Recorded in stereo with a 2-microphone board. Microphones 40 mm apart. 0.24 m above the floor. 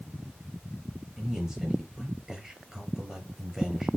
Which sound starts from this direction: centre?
A man speaking, at 1.2 s.